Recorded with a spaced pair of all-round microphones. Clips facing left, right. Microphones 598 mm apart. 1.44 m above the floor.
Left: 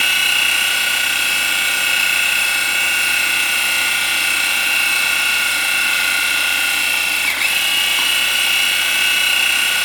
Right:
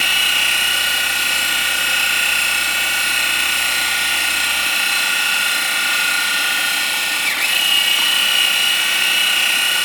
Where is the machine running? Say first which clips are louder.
Even; 5° right (ahead or behind), 5 m.